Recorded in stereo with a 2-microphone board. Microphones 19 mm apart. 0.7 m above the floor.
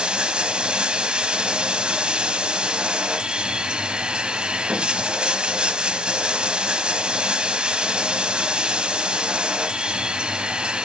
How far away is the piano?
No piano in this recording.